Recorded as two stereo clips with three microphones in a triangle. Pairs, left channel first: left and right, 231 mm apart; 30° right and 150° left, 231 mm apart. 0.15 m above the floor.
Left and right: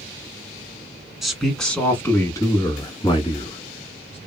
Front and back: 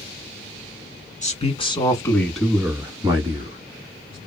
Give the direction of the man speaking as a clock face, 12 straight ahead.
12 o'clock.